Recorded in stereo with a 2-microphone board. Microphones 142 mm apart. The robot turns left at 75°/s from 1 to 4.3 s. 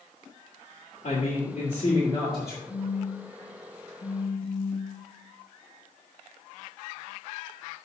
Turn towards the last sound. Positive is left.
turn(degrees=60)